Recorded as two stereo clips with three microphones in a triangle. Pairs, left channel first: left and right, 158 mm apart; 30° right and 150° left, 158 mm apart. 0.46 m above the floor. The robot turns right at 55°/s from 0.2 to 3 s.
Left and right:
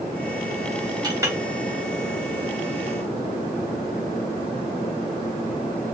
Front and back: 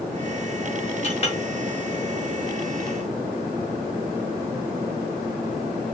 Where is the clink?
40° right, 0.6 m; by 1.4 s 20° right, 0.6 m.